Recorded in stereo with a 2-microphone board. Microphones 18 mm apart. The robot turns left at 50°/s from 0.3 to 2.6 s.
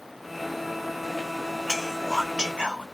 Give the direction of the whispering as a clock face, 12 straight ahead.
12 o'clock.